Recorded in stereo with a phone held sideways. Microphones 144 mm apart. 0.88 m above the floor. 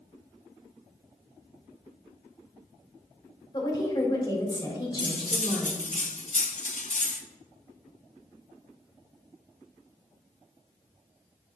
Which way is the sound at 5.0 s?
55° left (ahead or behind).